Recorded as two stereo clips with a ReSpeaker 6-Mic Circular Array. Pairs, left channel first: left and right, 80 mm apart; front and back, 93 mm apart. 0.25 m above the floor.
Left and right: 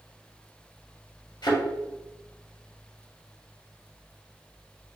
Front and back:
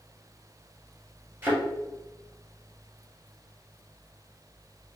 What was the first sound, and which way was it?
A thud, 115° left.